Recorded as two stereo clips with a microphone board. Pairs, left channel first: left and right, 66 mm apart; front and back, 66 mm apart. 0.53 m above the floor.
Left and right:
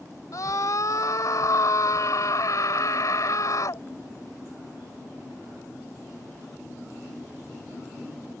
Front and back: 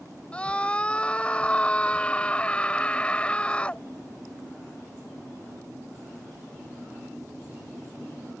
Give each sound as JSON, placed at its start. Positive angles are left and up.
{"t": 0.3, "sound": "a scream", "azimuth_deg": 70}